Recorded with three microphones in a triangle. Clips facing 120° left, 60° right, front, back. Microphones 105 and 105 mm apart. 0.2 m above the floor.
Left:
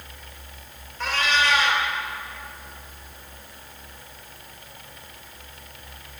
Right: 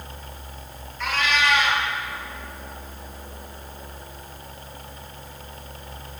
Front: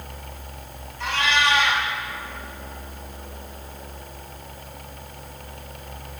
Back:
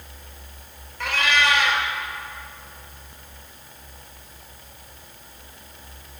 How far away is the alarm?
I don't hear an alarm.